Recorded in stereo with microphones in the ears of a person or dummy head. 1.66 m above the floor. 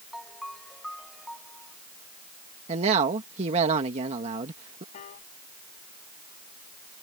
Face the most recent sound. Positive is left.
turn(degrees=50)  # may be behind; listen again after turning